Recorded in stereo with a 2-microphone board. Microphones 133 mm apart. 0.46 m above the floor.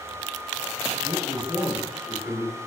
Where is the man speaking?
20° right (ahead or behind), 0.9 m; by 2.6 s 30° left (ahead or behind), 1.1 m.